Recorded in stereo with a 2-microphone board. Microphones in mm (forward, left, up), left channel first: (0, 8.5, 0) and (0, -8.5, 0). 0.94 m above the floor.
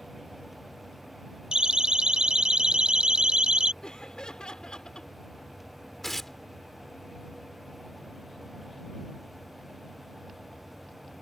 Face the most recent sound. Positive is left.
turn(degrees=15)  # may be behind; listen again after turning